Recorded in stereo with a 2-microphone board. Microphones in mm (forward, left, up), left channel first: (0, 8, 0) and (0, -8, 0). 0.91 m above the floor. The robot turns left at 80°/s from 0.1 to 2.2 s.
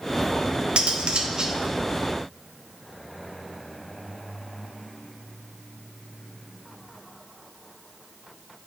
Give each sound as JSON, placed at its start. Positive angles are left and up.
{"t": 0.8, "sound": "cutlery clinking", "azimuth_deg": -85, "distance_m": 0.7}